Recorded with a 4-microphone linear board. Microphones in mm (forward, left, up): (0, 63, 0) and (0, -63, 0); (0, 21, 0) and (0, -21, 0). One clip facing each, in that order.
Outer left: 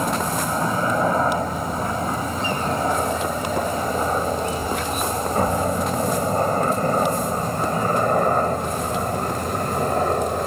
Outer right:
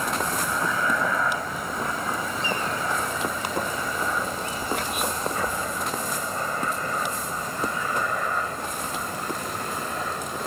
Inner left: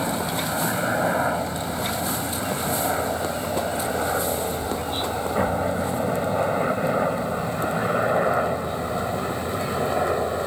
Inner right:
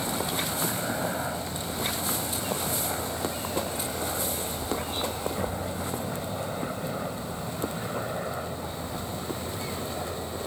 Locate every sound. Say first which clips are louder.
0.0 s a helicopter: outer left 4 dB, inner left 5 dB; 35° left (ahead or behind); by 10.5 s 50° left (ahead or behind)